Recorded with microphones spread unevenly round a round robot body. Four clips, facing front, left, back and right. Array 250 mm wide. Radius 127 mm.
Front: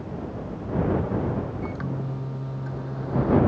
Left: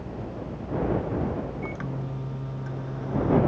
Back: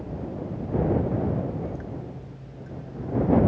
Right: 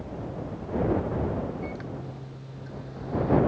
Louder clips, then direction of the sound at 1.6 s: Left 2 dB, front 3 dB; 30° left.